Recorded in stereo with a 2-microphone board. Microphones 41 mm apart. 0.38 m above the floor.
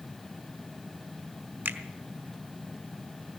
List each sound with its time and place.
1.6 s a finger snap: 50° right (ahead or behind), 1.5 m